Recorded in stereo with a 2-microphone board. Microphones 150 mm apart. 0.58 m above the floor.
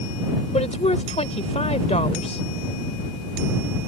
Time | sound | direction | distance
0.5 | a woman speaking | 45° left (ahead or behind) | ?